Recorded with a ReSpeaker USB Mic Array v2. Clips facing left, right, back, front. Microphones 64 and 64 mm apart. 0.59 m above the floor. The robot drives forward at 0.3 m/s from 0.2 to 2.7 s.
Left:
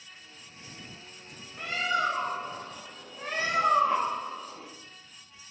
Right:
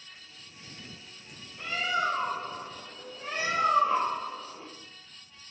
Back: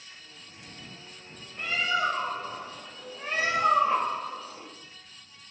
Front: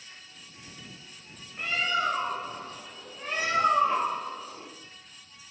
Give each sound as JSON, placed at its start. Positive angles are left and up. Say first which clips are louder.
{"t": 1.6, "sound": "a bird", "louder": "left 1 dB, back 1 dB", "azimuth_deg": 90, "distance_m": 0.8}